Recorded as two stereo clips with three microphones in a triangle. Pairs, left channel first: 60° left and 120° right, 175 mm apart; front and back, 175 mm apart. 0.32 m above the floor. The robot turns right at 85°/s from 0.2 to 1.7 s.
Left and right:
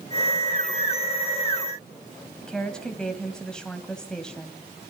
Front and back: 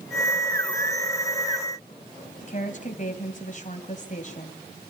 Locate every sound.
2.4 s a woman speaking: 25° right, 2 m